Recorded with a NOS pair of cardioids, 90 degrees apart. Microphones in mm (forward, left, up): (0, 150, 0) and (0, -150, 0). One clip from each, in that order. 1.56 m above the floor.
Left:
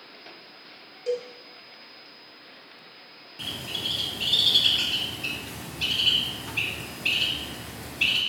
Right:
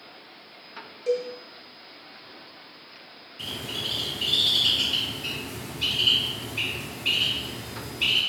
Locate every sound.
1.1 s a cowbell: 5° left, 0.8 m
3.4 s a bird: 45° left, 0.9 m